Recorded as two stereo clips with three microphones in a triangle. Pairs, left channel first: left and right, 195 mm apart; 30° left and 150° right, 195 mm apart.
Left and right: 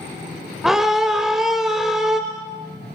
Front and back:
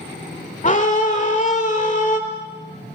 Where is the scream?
5° right, 1.4 m.